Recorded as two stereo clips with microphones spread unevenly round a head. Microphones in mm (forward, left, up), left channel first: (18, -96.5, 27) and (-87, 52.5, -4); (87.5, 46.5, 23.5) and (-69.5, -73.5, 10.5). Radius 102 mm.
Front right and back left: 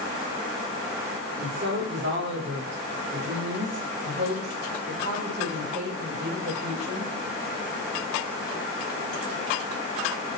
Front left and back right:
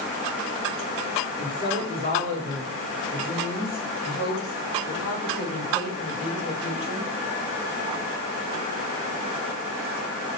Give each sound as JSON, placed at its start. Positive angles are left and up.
{"t": 1.4, "sound": "a woman speaking", "azimuth_deg": 90, "distance_m": 5.0}